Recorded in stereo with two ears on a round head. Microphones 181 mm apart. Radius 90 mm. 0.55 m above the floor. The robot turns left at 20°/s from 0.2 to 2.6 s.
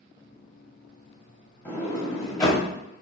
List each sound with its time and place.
1.6 s a sliding door: 10° left (ahead or behind), 1.2 m; by 2.6 s 20° left (ahead or behind), 1.2 m